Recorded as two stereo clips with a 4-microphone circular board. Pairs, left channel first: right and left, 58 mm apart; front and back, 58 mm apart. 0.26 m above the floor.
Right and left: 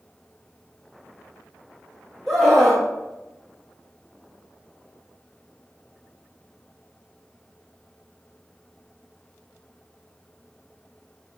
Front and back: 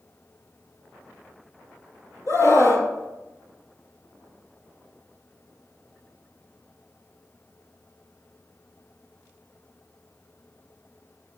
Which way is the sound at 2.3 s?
5° right.